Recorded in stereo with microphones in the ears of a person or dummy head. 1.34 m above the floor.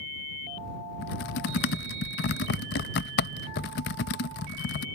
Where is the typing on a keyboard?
45° left (ahead or behind).